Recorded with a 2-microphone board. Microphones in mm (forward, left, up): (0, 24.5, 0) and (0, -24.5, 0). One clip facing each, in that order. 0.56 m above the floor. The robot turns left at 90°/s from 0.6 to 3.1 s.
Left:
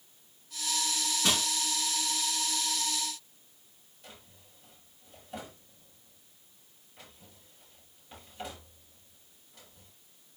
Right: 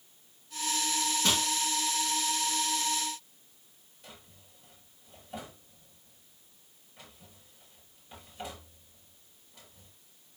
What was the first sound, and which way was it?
Crushing, 10° left (ahead or behind).